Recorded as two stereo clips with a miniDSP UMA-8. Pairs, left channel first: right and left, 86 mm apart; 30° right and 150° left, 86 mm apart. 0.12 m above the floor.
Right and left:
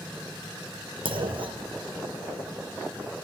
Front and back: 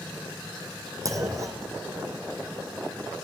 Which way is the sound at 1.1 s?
95° left.